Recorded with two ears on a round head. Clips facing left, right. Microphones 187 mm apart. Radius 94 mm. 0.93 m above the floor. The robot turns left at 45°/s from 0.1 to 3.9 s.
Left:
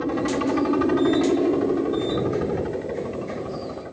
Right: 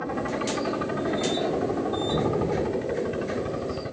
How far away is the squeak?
No squeak in this recording.